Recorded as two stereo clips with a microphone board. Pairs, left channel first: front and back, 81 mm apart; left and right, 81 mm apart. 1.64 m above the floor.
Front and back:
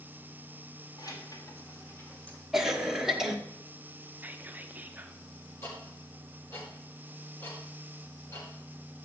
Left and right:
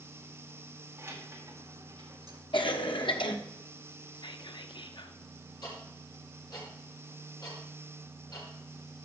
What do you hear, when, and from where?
1.0 s keys jangling: 30° right, 2 m; by 2.4 s 75° right, 1.7 m
2.5 s a cough: 95° left, 1.3 m
4.1 s whispering: 110° left, 0.5 m
5.6 s ticking: 55° left, 5.5 m